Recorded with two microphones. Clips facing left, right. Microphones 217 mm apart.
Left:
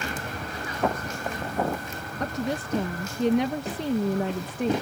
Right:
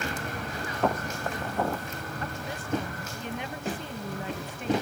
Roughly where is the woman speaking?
Left.